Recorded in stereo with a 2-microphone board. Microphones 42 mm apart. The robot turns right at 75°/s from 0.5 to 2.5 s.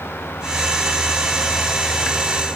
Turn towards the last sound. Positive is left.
No sound to turn to.